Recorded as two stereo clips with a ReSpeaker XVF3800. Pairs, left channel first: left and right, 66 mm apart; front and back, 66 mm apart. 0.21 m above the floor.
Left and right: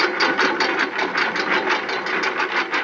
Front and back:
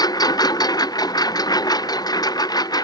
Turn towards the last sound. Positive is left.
turn(degrees=0)